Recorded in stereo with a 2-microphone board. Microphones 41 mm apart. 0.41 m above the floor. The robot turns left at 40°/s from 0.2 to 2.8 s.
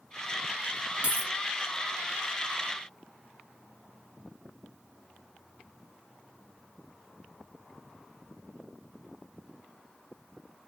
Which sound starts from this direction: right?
A dropped coin, at 1.0 s.